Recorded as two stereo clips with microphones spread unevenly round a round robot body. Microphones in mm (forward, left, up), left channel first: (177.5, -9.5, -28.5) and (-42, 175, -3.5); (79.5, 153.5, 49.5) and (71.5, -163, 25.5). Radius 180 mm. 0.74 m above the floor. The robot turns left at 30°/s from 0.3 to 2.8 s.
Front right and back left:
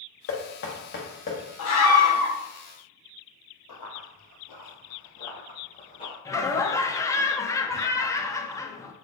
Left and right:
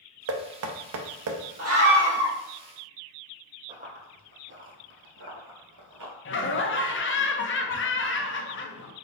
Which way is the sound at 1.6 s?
45° right.